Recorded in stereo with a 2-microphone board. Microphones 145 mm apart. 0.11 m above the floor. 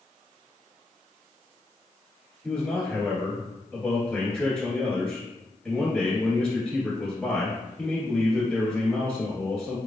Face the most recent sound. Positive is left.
turn(degrees=5)  # may be behind; listen again after turning